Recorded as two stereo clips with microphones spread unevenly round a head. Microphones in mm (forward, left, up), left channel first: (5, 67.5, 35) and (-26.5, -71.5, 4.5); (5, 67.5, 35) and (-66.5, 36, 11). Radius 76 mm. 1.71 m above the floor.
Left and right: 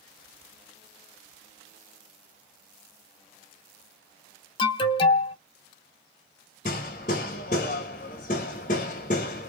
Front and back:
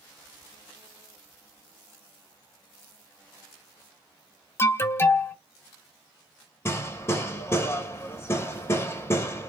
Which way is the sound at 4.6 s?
45° left.